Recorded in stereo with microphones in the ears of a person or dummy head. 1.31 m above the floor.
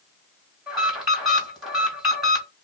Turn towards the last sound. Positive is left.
turn(degrees=-5)  # may be behind; listen again after turning